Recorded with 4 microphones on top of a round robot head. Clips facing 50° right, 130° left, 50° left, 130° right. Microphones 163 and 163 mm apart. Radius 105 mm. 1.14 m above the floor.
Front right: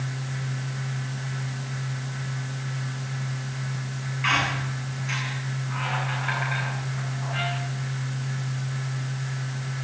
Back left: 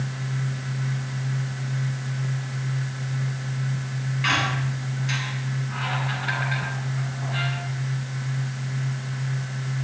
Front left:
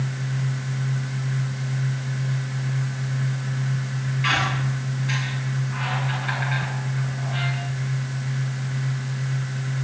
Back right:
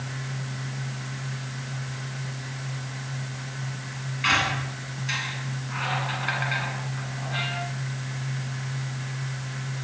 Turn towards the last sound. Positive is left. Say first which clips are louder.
# even, even
turn(degrees=-175)